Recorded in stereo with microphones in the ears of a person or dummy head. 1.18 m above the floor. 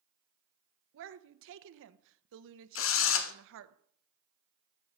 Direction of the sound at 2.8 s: 60° left (ahead or behind).